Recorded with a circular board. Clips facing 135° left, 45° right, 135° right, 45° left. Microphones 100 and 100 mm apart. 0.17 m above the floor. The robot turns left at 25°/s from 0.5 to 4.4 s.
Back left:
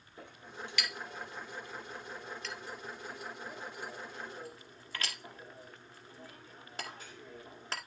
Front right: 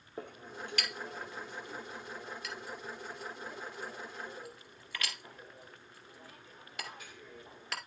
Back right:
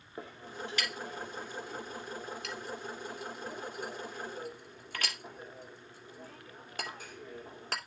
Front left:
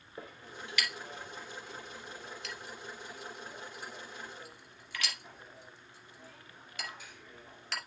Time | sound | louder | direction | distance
0.2 | a clink | front right 3 dB, back right 4 dB | 80° right | 2.5 m